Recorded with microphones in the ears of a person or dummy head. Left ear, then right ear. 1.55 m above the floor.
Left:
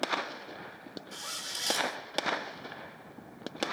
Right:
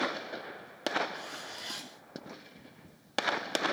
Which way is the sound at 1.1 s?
85° left.